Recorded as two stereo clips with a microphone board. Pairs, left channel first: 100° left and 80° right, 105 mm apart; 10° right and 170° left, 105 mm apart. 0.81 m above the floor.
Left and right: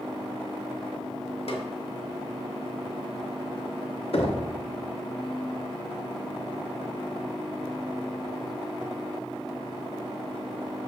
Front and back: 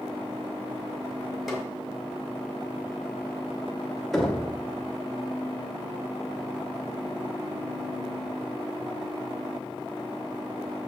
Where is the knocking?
80° left, 1.2 m.